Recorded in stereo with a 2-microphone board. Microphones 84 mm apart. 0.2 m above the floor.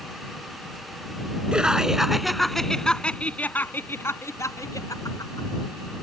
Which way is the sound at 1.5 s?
10° right (ahead or behind).